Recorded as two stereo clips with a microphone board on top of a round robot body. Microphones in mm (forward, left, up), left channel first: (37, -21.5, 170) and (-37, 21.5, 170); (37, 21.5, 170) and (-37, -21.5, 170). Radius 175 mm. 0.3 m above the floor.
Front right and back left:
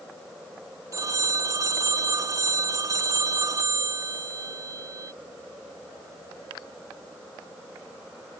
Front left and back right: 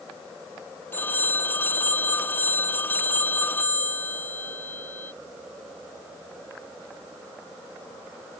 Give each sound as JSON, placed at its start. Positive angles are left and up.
{"t": 0.9, "sound": "a phone ringing", "azimuth_deg": 100}